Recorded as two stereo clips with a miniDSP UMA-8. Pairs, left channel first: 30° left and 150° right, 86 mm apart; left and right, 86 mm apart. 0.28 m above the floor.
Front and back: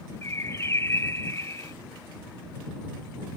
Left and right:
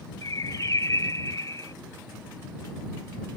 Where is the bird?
70° left.